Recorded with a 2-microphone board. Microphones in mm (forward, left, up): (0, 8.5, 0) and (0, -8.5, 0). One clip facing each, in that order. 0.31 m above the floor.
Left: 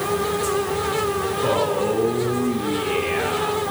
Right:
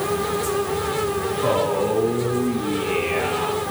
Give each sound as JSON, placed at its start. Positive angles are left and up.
{"t": 1.4, "sound": "a man speaking", "side_deg": 5, "distance_m": 3.0}